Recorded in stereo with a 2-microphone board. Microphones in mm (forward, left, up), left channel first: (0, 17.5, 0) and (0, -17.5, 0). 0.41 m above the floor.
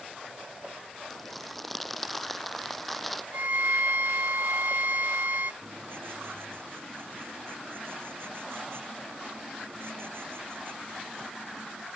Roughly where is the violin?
Right.